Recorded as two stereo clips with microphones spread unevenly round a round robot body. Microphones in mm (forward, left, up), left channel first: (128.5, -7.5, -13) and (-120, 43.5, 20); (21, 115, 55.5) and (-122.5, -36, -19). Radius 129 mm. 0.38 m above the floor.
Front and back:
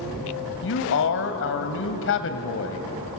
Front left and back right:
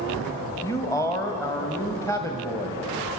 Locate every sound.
0.6 s a man speaking: 40° right, 1.8 m